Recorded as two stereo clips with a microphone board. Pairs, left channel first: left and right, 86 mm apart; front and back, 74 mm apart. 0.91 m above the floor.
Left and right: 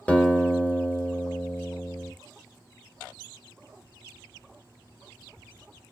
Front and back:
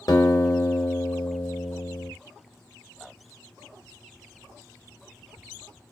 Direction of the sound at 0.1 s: 20° left.